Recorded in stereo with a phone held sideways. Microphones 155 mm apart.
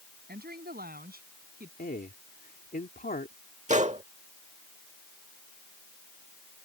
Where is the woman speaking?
85° right; by 1.7 s 80° right.